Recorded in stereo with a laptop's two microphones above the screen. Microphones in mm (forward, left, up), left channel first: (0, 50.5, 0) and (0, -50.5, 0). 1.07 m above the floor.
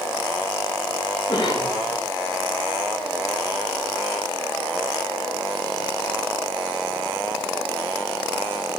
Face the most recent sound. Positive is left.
turn(degrees=60)  # may be behind; listen again after turning